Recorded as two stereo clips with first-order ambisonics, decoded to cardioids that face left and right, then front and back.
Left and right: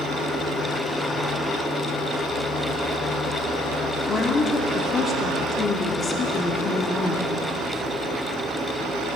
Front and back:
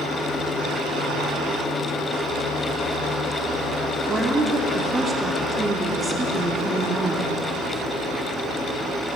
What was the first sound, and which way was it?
A woman speaking, 120° left.